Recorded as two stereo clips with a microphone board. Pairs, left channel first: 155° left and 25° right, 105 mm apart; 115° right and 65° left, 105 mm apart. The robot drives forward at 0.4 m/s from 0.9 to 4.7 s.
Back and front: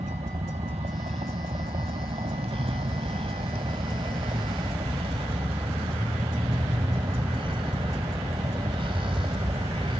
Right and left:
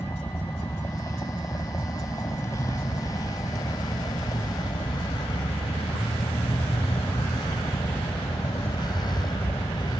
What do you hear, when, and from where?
0.0 s a vehicle: 45° right; by 10.0 s 65° right